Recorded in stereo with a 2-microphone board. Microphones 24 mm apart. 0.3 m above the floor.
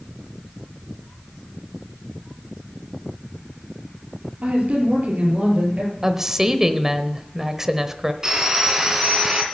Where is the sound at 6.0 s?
20° right (ahead or behind), 0.9 m.